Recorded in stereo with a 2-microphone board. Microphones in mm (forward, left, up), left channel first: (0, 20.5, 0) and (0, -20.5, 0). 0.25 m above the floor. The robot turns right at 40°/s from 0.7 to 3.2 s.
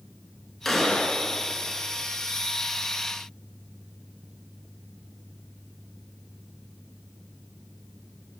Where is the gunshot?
5° left (ahead or behind), 0.6 m; by 1.2 s 30° left (ahead or behind), 0.6 m.